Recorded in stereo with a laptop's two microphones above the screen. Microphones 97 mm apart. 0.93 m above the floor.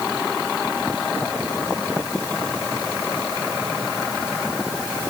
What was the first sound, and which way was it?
Only background noise.